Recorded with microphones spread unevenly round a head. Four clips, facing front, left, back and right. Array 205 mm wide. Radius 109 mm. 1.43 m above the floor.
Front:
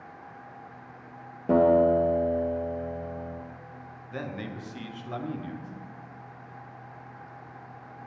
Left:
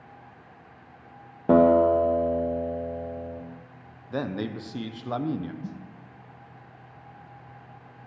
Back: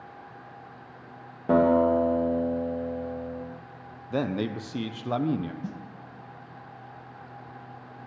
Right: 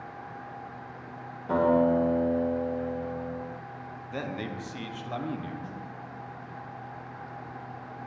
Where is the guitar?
85° left, 0.9 m.